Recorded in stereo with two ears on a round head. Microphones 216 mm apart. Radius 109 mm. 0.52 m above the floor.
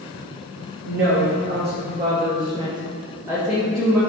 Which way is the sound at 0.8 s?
55° right (ahead or behind).